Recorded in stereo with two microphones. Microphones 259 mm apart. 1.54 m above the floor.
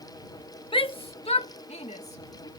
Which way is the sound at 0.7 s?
20° left (ahead or behind).